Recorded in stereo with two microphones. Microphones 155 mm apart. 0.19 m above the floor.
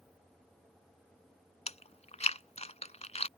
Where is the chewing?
45° left (ahead or behind).